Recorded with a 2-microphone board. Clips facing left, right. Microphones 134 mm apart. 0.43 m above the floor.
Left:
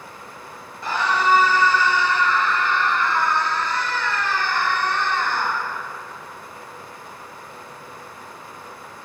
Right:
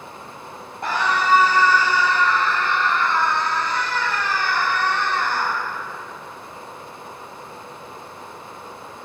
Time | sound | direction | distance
0.8 | a scream | 55° right (ahead or behind) | 2.5 m